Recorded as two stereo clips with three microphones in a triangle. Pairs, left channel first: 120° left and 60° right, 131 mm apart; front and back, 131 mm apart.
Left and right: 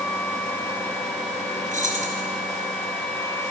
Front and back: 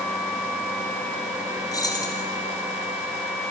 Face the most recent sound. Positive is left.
turn(degrees=-60)